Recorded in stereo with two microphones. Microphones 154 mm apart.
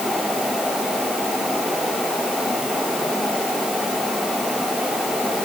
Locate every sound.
Only background noise.